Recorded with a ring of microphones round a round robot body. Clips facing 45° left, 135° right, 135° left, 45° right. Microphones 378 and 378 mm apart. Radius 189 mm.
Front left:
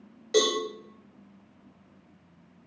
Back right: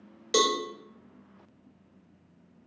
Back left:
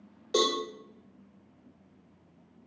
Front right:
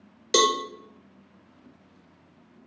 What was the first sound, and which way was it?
A cowbell, 75° right.